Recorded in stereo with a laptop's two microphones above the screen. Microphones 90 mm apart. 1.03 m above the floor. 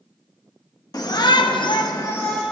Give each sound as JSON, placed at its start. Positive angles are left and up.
{"t": 0.9, "sound": "a shout", "side_deg": 45, "distance_m": 1.4}